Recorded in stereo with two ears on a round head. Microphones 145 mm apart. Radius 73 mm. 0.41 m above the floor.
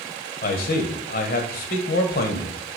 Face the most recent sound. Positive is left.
turn(degrees=60)  # may be behind; listen again after turning